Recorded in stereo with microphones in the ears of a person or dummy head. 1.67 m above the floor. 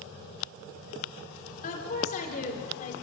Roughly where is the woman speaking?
Left.